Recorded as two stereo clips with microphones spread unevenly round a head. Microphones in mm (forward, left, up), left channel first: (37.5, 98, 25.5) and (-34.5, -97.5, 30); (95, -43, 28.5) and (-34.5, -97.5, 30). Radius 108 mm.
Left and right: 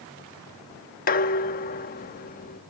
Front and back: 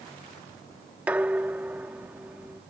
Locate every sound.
1.1 s dishes clattering: 120° left